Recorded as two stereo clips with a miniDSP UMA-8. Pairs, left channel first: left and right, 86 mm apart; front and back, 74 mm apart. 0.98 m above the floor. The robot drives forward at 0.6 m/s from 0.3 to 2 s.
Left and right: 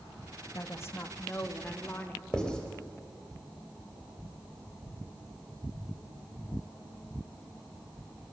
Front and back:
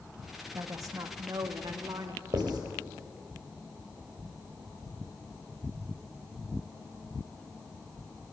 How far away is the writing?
About 3 m.